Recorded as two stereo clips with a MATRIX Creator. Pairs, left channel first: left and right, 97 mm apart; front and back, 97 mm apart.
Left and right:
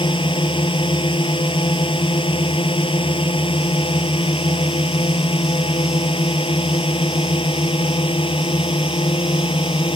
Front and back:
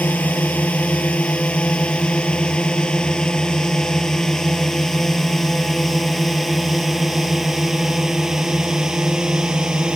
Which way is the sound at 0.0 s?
70° left.